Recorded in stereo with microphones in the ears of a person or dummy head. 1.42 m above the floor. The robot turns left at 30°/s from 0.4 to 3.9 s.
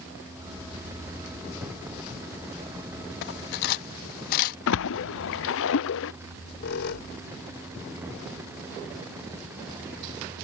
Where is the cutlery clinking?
60° left (ahead or behind); by 4.6 s 55° left (ahead or behind).